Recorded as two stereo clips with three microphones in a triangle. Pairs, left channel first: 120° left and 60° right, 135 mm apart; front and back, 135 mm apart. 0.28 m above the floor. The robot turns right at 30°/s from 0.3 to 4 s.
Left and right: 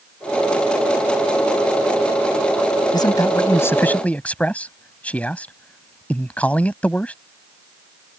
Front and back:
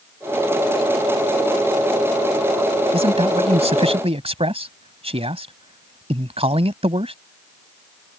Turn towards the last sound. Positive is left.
turn(degrees=-165)